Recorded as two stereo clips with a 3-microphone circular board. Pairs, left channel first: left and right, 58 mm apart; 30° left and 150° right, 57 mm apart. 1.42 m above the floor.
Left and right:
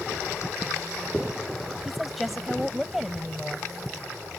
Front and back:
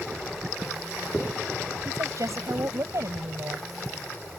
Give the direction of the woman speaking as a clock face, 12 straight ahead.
6 o'clock.